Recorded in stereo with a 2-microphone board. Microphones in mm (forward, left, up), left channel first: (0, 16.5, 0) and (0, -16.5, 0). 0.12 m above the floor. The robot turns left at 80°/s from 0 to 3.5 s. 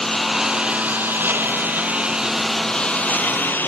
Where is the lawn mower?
20° left; by 3.7 s 100° left.